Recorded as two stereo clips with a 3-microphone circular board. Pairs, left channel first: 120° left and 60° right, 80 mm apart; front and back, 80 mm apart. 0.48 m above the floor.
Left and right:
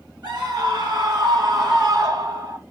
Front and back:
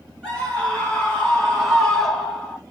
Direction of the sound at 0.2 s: 80° right.